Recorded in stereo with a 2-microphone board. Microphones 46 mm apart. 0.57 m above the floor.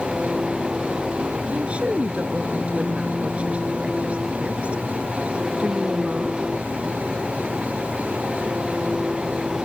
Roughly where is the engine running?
Centre.